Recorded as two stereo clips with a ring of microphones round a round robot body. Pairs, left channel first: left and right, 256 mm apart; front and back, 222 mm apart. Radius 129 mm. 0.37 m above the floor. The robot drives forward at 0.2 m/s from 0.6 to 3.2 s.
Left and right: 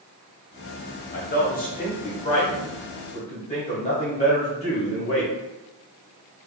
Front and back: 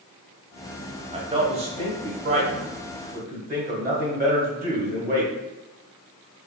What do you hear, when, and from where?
1.1 s a man speaking: 125° left, 1.0 m; by 5.3 s 145° left, 1.2 m